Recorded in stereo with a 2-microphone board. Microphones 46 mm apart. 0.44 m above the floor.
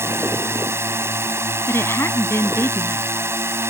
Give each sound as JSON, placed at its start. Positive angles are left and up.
{"t": 0.0, "sound": "a drone", "side_deg": -65}
{"t": 1.7, "sound": "a woman speaking", "side_deg": 70}